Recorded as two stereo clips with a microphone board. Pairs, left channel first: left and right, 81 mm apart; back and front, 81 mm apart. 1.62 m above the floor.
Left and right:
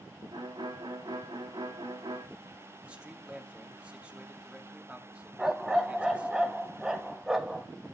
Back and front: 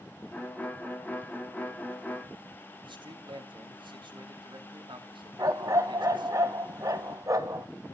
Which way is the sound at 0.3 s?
110° right.